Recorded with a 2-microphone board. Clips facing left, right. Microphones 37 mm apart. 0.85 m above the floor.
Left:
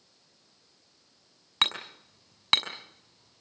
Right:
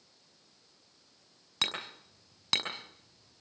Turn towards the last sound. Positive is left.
turn(degrees=40)  # may be behind; listen again after turning